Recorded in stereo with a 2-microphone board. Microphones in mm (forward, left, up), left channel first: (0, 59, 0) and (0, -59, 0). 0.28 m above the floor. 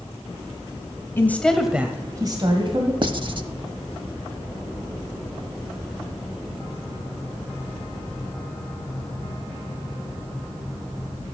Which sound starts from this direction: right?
Writing, at 3.0 s.